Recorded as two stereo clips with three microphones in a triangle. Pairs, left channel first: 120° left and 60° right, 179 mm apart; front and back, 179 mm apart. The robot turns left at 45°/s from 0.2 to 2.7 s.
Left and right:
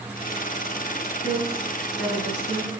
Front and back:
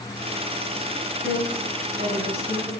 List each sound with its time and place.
1.2 s a woman speaking: 165° left, 6 m; by 2.7 s 95° left, 6 m